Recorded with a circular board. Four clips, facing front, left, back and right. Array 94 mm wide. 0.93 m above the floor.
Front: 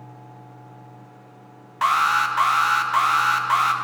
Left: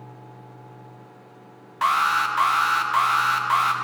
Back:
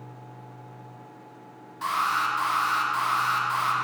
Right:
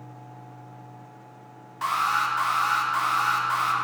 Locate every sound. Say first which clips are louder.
1.8 s an alarm: left 4 dB, front 6 dB; 35° left, 0.7 m